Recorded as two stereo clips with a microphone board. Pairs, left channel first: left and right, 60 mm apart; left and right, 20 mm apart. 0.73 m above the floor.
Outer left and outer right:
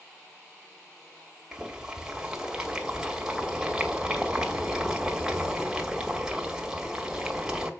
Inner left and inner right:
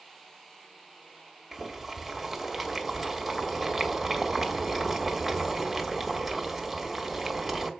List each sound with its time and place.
1.5 s boiling: 10° right (ahead or behind), 1.4 m